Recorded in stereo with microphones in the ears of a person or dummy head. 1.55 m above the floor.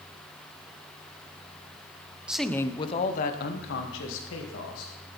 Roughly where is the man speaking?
Centre.